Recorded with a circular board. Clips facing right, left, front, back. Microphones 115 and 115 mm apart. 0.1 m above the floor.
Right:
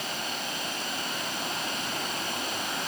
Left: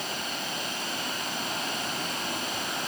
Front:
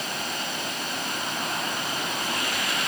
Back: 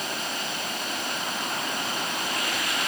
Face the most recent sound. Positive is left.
No sound to turn to.